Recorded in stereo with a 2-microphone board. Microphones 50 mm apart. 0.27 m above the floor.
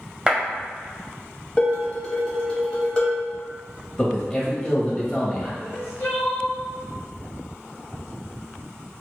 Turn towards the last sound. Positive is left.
turn(degrees=60)  # may be behind; listen again after turning